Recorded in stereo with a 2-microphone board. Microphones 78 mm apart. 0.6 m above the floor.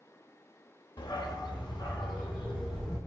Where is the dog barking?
80° left, 0.7 m; by 3.0 s 75° left (ahead or behind), 3.5 m.